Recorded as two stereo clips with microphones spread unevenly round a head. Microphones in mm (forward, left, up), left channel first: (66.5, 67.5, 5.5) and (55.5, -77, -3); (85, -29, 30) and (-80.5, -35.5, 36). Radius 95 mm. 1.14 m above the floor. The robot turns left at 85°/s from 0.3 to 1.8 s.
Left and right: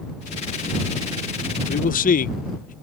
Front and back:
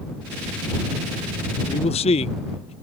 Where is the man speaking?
70° left; by 2.7 s 60° left.